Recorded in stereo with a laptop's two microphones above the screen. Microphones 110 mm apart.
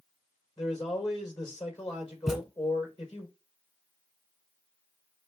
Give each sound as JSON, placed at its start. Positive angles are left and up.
{"t": 0.6, "sound": "a man speaking", "side_deg": 40, "distance_m": 3.5}
{"t": 2.3, "sound": "a thud", "side_deg": 0, "distance_m": 1.4}